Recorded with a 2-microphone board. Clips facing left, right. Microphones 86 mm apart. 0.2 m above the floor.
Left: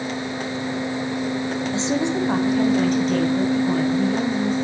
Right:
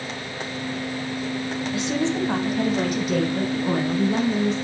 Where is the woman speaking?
25° left (ahead or behind), 1.3 m; by 4.5 s 25° right (ahead or behind), 2.5 m.